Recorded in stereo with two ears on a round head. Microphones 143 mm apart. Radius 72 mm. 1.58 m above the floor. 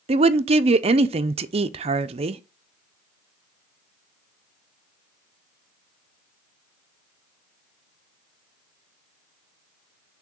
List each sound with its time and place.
0.1 s a woman speaking: 40° right (ahead or behind), 0.6 m